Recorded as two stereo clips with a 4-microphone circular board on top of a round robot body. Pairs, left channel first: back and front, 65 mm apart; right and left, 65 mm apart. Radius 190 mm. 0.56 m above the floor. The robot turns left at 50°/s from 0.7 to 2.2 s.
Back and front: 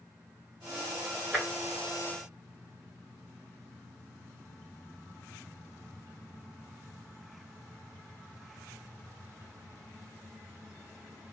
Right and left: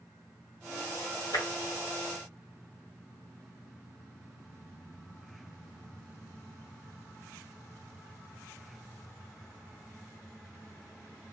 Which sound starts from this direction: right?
Tapping, at 1.3 s.